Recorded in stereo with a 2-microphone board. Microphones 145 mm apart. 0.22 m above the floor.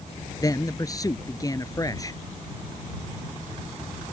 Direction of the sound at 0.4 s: 25° left (ahead or behind).